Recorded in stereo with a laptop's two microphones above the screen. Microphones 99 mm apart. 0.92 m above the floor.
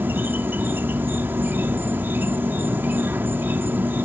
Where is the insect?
20° right (ahead or behind).